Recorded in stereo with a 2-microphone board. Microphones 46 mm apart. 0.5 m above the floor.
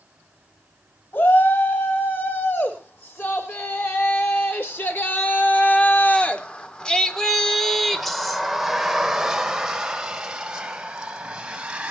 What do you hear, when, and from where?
1.1 s a shout: 50° left (ahead or behind), 4 m; by 11.9 s 20° right (ahead or behind), 4.5 m